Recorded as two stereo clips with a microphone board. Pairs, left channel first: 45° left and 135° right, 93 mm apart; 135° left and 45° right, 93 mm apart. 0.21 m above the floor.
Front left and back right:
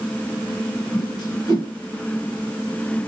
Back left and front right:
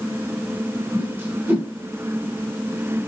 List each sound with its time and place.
0.9 s a whoosh: 20° left, 2 m